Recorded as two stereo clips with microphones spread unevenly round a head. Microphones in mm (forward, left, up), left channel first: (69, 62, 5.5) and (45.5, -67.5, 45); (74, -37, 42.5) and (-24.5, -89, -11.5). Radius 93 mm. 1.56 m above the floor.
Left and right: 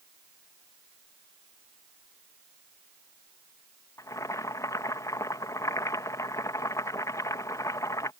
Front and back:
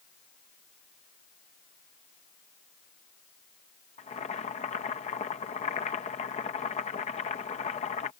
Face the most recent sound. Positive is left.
turn(degrees=10)